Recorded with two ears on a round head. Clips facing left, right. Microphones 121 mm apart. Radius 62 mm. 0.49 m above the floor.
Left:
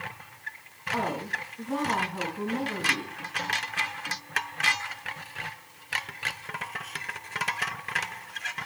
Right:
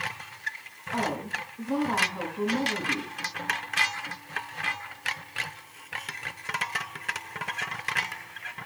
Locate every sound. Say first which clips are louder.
0.9 s a woman speaking: even; 5° left (ahead or behind), 6 m